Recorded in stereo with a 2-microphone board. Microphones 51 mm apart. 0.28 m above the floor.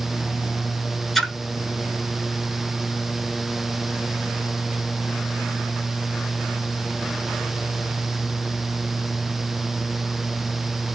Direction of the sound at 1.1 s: 5° left (ahead or behind).